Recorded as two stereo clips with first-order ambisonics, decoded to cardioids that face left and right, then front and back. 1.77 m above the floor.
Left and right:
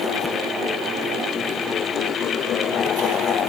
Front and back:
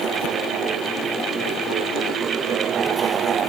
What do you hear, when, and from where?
Only background noise.